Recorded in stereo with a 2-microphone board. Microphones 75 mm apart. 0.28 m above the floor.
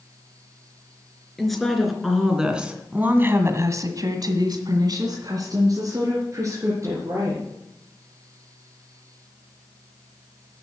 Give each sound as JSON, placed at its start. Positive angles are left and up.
{"t": 1.4, "sound": "a woman speaking", "side_deg": 5, "distance_m": 3.5}